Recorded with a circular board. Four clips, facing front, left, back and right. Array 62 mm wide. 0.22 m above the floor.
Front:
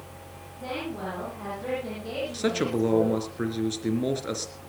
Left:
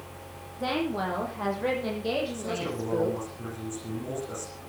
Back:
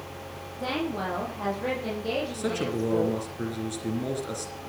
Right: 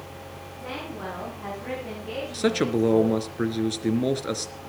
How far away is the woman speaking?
About 7 m.